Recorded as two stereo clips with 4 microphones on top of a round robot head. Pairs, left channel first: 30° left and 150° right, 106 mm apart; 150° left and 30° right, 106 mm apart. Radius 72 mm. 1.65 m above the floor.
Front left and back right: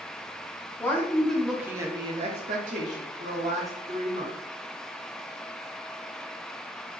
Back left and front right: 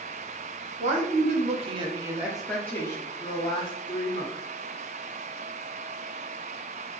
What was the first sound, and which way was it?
A woman speaking, 40° right.